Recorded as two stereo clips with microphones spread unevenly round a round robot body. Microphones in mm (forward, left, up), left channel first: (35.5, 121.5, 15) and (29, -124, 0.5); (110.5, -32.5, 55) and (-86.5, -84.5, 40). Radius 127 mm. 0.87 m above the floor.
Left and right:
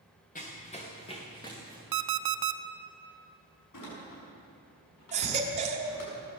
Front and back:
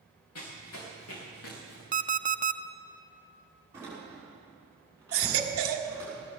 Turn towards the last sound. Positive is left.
turn(degrees=-155)